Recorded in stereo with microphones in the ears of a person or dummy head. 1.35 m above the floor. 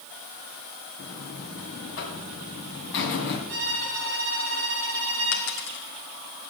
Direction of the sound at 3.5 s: 50° right (ahead or behind).